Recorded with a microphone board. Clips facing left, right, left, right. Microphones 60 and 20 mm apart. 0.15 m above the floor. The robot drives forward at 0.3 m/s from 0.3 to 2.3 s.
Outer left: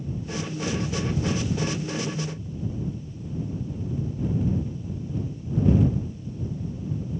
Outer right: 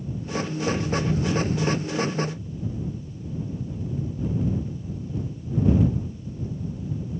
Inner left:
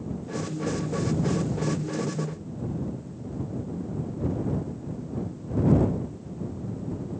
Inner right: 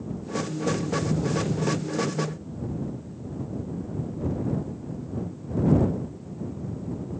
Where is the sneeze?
No sneeze in this recording.